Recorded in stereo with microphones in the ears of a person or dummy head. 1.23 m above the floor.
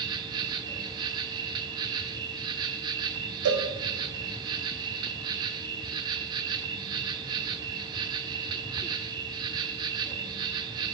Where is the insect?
20° right (ahead or behind), 0.9 m.